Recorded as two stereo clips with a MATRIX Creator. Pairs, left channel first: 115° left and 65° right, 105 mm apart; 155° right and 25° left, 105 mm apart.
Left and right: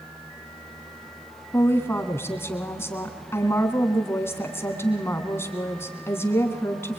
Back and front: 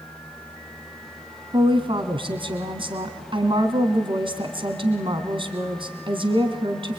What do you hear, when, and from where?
1.5 s a woman speaking: 50° left, 2.5 m